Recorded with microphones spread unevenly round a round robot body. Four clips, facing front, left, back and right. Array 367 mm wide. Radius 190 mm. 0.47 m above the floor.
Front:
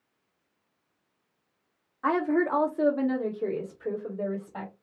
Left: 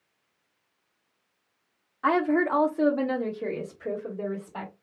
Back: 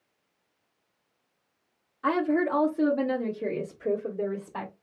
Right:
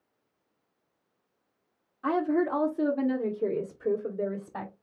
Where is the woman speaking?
85° left, 1.3 m; by 4.7 s 135° right, 1.5 m.